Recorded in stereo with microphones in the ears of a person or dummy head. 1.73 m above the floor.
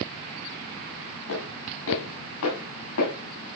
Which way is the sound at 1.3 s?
80° left.